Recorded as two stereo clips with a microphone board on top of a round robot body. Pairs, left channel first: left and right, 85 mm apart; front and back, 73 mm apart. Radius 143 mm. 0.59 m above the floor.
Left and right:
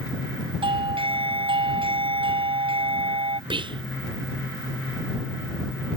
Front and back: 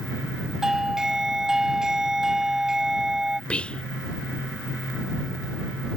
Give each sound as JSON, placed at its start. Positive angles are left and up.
{"t": 0.6, "sound": "a doorbell", "azimuth_deg": -95}
{"t": 3.5, "sound": "whispering", "azimuth_deg": -75}